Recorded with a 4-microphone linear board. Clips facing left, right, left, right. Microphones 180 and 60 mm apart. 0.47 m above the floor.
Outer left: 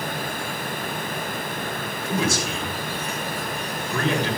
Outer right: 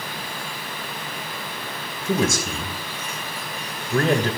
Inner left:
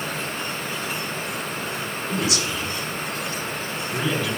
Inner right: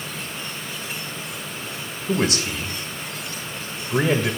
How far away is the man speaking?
About 2.5 m.